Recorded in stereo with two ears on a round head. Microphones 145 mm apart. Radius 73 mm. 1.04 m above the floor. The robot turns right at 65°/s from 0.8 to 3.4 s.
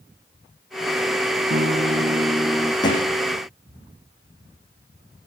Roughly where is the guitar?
Right.